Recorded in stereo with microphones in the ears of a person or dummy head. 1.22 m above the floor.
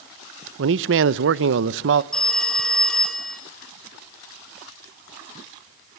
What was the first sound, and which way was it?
A man speaking, 70° right (ahead or behind).